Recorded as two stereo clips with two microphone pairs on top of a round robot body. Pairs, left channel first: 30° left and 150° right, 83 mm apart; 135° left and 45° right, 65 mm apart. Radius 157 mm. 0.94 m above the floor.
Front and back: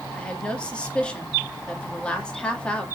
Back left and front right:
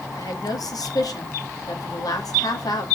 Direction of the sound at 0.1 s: 110° left.